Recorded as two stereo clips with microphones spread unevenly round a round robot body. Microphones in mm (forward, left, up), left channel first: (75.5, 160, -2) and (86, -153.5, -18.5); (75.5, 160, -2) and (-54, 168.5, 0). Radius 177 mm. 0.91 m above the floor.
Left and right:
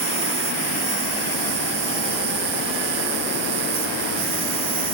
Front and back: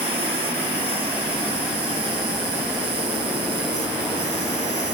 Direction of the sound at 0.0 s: 140° right.